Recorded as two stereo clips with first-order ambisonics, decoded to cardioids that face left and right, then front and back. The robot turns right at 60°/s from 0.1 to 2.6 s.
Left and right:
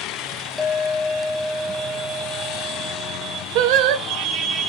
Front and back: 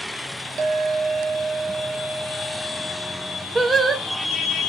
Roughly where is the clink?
Behind left.